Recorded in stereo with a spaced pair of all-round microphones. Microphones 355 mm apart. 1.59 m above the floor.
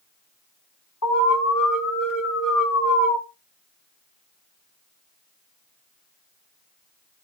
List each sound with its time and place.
1.0 s an alarm: 70° left (ahead or behind), 4.5 m